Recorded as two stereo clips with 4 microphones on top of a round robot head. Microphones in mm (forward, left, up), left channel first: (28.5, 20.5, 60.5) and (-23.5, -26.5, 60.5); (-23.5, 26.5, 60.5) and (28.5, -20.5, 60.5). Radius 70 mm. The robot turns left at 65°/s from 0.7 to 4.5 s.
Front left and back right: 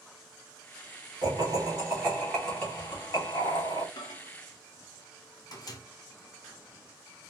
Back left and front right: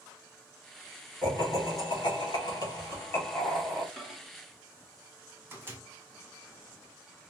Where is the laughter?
150° right, 2.5 m; by 3.9 s 40° left, 2.5 m.